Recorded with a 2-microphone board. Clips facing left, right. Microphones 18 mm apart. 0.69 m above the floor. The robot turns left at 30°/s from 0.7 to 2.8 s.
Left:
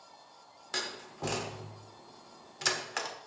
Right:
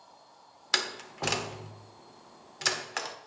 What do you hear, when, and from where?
0.7 s a door slam: 70° right (ahead or behind), 1.0 m; by 3.1 s 10° right (ahead or behind), 1.0 m